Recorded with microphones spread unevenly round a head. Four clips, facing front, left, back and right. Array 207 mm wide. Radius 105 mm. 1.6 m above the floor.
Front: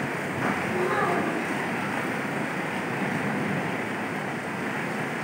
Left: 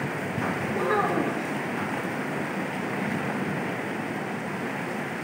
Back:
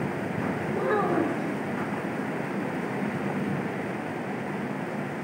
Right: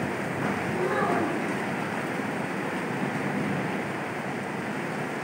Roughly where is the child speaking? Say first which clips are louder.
Left 2 dB, back 2 dB; behind left.